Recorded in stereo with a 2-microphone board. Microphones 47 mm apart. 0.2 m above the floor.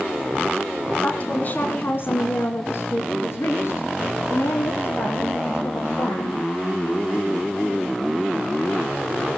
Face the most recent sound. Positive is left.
turn(degrees=70)  # may be behind; listen again after turning